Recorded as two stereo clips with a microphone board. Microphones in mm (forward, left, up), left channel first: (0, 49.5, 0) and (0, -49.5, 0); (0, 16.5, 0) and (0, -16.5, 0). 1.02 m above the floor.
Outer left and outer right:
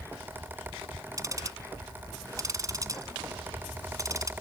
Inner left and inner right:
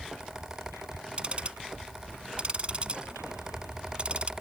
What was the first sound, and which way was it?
Ticking, 35° right (ahead or behind).